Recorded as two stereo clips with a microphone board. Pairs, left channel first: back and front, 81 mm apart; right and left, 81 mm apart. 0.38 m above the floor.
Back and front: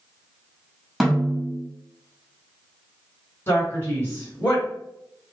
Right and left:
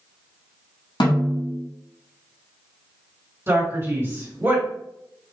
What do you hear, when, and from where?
1.0 s a snare drum: 85° right, 1.4 m
3.5 s a man speaking: 125° left, 1.9 m